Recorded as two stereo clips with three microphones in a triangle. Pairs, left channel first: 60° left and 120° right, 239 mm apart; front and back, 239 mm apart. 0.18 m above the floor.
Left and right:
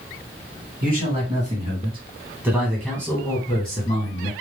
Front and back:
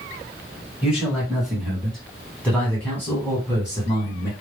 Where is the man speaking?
95° right, 1.8 m; by 4.3 s 65° left, 1.6 m.